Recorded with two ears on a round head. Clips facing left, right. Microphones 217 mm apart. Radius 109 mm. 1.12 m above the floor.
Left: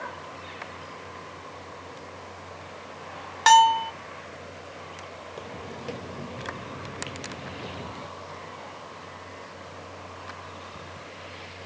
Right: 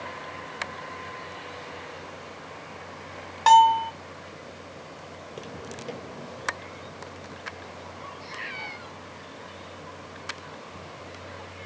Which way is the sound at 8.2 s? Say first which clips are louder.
Even; 80° right.